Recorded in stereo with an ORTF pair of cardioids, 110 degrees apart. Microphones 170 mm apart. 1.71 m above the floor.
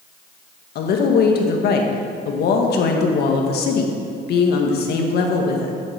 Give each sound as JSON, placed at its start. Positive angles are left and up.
{"t": 0.8, "sound": "a woman speaking", "azimuth_deg": 65, "distance_m": 1.8}